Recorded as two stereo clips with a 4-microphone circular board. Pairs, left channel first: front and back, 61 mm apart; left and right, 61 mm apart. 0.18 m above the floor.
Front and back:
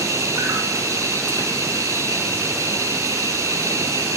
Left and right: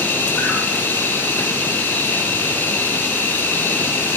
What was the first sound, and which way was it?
An insect, 145° left.